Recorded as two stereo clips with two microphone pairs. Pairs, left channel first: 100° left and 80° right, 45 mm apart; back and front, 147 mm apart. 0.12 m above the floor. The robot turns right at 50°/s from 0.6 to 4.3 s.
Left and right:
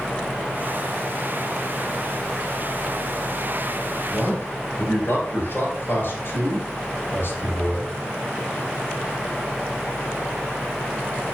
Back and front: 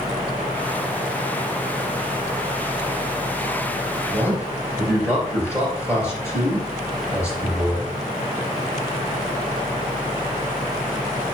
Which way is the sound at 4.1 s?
100° left.